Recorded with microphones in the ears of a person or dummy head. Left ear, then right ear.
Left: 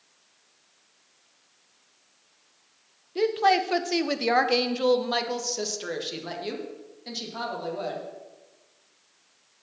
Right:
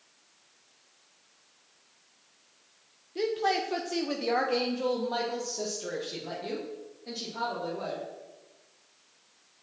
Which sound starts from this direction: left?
A woman speaking, at 3.1 s.